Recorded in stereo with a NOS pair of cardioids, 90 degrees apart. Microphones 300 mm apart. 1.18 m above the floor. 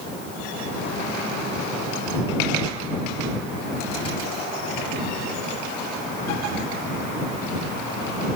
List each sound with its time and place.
Only background noise.